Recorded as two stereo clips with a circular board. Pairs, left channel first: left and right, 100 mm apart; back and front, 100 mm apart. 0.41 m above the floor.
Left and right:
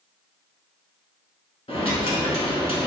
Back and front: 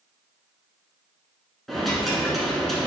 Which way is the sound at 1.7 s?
90° left.